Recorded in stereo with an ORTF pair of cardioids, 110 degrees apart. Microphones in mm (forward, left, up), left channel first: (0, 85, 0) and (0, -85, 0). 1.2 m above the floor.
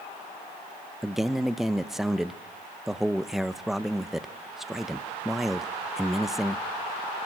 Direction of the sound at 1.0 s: Straight ahead.